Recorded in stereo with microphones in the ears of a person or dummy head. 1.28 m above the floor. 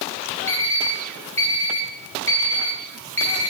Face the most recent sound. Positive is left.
turn(degrees=15)  # may be behind; listen again after turning